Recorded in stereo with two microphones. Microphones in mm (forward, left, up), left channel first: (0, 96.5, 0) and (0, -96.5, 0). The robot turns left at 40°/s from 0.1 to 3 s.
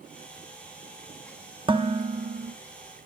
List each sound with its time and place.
1.7 s dishes clattering: 25° right, 0.9 m; by 2.5 s 60° right, 0.9 m